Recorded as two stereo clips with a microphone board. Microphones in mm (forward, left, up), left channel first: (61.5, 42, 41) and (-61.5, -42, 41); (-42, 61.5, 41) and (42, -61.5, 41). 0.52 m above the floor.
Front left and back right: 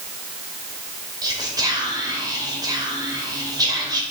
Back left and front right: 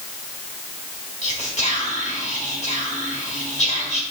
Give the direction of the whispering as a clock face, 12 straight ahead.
7 o'clock.